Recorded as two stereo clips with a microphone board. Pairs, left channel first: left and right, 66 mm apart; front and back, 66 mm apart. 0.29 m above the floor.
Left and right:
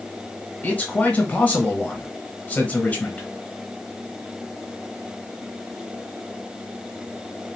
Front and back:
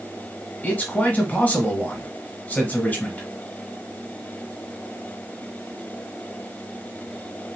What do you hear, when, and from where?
0.6 s a man speaking: 45° left, 1.2 m